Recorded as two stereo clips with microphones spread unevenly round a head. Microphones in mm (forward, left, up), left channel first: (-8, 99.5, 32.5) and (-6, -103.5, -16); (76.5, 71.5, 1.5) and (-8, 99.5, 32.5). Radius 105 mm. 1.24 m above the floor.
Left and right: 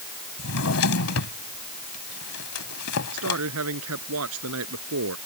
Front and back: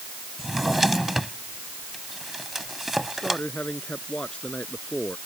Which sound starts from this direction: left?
A drawer, at 0.4 s.